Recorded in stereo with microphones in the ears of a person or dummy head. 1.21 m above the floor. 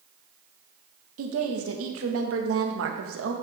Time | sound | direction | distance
1.2 | a woman speaking | 75° right (ahead or behind) | 1.6 m